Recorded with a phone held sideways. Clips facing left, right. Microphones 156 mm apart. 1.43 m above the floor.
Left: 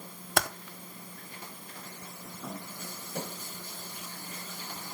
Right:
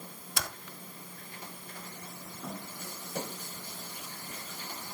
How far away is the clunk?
No clunk in this recording.